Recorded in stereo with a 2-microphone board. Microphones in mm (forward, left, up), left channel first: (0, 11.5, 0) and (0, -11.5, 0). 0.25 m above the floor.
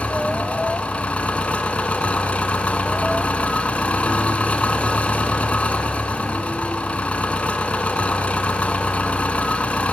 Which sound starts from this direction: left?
An engine running, at 0.0 s.